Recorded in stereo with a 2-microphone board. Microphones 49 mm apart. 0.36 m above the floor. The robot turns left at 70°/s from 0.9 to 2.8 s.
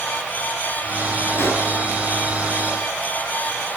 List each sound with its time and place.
1.4 s a pop: 50° left (ahead or behind), 3.5 m; by 1.7 s 30° left (ahead or behind), 3.5 m